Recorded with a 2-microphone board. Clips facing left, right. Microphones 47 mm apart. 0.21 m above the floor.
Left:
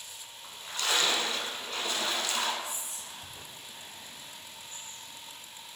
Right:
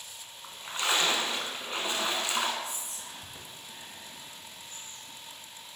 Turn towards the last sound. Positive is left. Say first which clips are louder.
# right 1 dB
turn(degrees=-35)  # may be behind; listen again after turning